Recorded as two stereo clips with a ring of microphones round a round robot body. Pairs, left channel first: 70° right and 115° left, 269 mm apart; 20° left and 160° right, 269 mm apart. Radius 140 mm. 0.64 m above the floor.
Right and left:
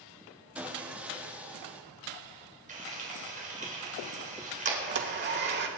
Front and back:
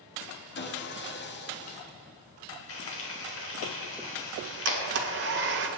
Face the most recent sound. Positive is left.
turn(degrees=160)